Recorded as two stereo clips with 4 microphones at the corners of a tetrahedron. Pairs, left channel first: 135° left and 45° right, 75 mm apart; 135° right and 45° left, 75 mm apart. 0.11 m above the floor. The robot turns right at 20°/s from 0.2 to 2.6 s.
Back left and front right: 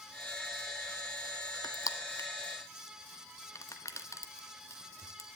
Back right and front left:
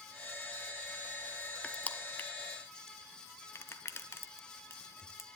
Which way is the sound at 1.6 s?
155° left.